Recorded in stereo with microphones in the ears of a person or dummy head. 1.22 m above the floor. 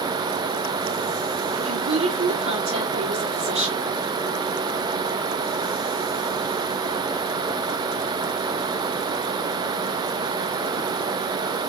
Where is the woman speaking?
30° right (ahead or behind), 2 m.